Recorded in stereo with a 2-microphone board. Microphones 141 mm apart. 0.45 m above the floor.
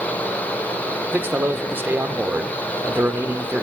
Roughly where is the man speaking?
Centre.